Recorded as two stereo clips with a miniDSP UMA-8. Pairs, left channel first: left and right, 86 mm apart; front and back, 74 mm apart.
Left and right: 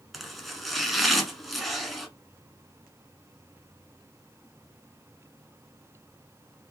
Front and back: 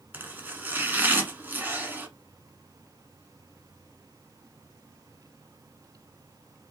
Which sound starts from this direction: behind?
Chopping, at 0.1 s.